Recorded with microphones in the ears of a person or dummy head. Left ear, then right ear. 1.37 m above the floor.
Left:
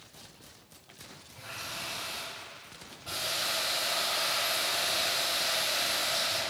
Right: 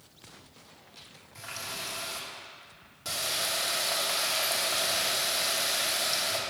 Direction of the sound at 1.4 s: 75° right (ahead or behind).